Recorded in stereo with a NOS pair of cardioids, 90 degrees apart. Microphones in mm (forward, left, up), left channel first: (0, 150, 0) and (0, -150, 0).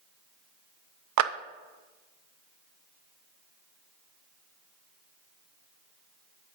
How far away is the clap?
About 0.6 m.